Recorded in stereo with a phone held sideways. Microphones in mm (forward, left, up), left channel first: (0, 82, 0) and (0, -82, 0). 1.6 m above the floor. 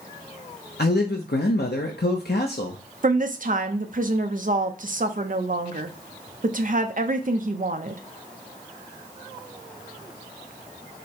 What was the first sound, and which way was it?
A man speaking, 85° left.